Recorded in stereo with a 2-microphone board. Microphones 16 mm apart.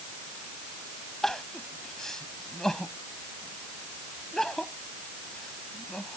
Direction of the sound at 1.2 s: 30° left (ahead or behind).